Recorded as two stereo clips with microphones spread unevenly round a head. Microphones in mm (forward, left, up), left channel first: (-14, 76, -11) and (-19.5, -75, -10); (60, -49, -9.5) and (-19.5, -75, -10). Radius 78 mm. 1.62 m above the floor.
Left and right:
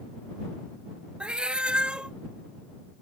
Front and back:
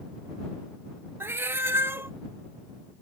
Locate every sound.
1.2 s a cat meowing: 170° right